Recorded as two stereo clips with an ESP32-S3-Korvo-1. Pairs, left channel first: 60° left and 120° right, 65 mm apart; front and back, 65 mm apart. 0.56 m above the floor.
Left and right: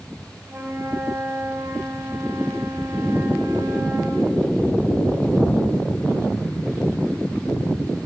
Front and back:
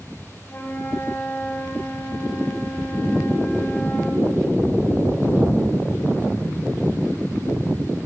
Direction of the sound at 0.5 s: 65° right.